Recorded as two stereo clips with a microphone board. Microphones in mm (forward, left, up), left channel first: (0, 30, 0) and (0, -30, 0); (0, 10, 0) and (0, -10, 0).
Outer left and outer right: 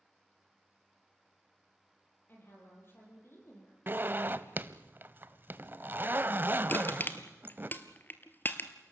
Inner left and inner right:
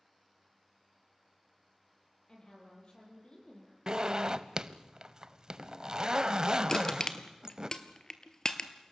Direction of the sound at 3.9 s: 35° right (ahead or behind).